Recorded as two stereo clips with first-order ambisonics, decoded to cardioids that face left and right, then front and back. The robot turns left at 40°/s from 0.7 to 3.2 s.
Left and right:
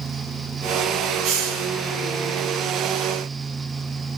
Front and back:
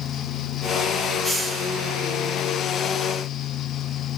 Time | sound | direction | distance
1.2 | a hiss | 80° right | 1.2 m